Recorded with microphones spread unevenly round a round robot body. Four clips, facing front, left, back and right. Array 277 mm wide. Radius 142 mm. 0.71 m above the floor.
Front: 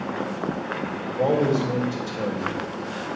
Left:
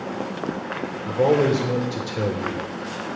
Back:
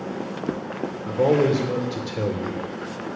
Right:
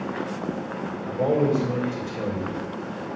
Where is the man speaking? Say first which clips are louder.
Left 3 dB, back 2 dB; 120° left, 2.5 m.